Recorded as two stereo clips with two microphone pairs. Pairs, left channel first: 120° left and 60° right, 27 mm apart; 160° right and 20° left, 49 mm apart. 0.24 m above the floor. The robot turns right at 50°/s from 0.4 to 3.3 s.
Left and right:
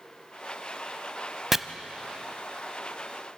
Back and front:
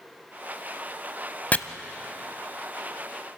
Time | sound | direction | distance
1.5 | chopping | 130° right | 0.6 m